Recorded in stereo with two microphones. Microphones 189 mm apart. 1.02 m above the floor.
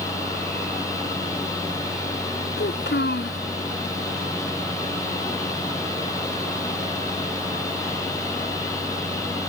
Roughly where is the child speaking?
Left.